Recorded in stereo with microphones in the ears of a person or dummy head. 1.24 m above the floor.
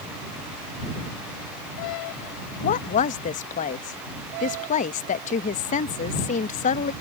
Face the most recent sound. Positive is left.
turn(degrees=35)  # may be behind; listen again after turning